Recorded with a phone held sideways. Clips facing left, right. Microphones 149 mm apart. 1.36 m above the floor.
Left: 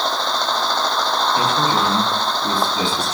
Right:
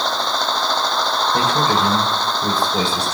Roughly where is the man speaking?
Right.